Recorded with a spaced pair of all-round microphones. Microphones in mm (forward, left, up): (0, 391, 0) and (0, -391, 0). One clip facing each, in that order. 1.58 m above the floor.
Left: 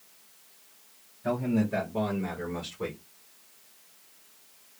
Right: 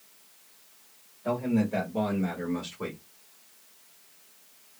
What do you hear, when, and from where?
1.2 s a man speaking: 50° left (ahead or behind), 1.9 m; by 3.0 s 15° left (ahead or behind), 1.7 m